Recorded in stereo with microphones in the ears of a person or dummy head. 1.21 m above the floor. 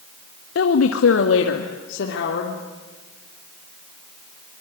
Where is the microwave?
No microwave in this recording.